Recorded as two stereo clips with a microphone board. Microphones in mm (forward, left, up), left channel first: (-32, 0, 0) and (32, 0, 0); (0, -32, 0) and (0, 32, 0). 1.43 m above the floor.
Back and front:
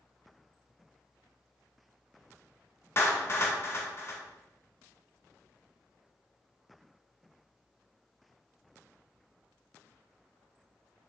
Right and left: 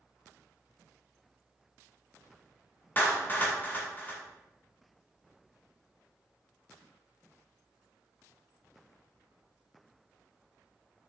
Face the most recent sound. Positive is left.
turn(degrees=-140)